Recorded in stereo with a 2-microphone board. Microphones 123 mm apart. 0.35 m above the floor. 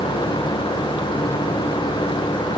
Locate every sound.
Only background noise.